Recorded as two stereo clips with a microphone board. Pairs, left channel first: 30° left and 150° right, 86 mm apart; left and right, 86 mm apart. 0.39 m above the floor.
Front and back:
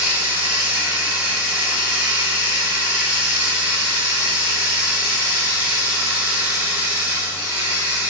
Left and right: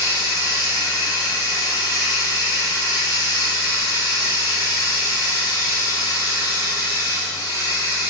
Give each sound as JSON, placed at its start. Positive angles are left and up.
{"t": 0.0, "sound": "running water", "azimuth_deg": 145, "distance_m": 4.5}